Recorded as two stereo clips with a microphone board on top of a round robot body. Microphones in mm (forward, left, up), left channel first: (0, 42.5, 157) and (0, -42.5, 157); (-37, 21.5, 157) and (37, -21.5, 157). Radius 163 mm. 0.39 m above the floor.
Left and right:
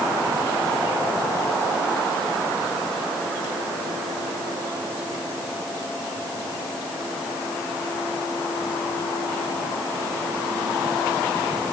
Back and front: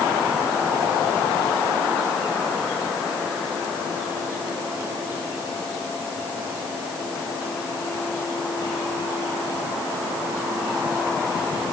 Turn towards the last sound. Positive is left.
No sound to turn to.